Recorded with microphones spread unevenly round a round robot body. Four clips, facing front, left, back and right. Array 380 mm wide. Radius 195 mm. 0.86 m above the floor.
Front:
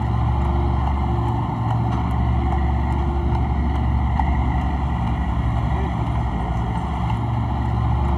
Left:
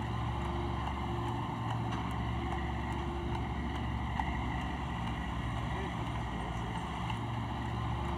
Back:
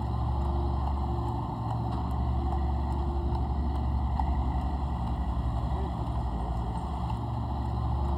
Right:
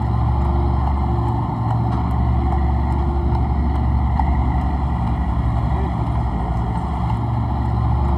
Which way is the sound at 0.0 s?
50° right.